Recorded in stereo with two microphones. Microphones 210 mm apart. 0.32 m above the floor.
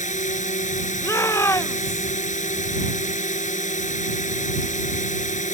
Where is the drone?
35° left (ahead or behind).